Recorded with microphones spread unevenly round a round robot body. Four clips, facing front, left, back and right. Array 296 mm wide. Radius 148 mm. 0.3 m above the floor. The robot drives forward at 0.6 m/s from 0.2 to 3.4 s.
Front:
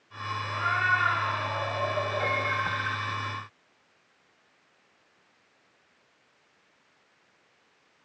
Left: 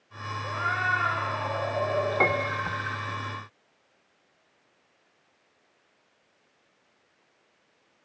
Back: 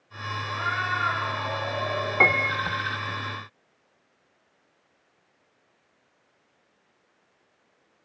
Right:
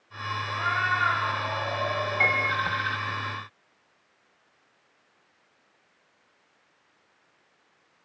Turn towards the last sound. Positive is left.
turn(degrees=160)